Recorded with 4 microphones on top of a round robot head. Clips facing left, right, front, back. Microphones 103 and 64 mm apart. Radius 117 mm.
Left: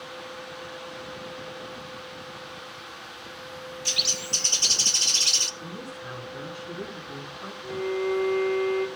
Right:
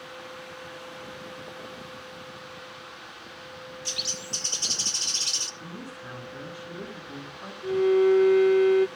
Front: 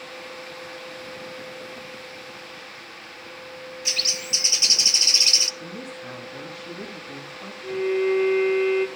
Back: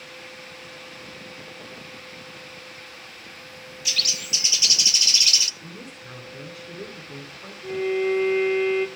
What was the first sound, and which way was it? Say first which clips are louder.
A bird: left 3 dB, back 1 dB; 60° left.